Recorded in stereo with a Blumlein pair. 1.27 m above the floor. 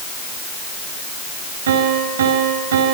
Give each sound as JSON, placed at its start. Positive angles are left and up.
{"t": 1.7, "sound": "a piano", "azimuth_deg": -60, "distance_m": 5.5}